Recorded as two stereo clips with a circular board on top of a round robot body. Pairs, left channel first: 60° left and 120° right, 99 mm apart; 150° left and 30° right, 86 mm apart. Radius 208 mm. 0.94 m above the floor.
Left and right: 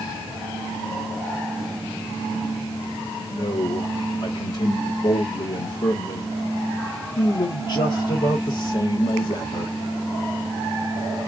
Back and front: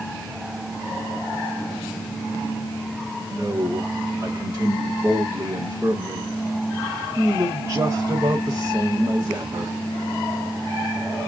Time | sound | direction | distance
3.3 | a man speaking | 30° left | 1.9 m